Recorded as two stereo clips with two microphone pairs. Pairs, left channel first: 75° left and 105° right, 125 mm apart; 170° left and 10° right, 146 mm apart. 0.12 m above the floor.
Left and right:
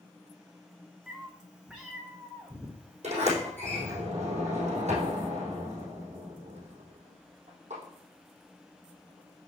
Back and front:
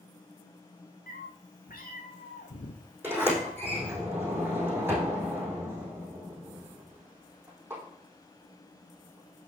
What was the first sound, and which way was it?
A cat meowing, 170° left.